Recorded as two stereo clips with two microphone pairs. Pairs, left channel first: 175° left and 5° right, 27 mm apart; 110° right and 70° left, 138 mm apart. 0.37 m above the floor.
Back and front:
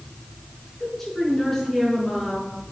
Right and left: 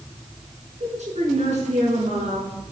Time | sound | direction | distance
0.8 | a woman speaking | 95° left | 5 m